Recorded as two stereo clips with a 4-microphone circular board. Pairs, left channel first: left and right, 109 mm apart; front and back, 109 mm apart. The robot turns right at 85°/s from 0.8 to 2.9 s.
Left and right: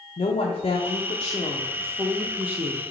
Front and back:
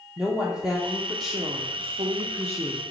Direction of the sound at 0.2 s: 95° left.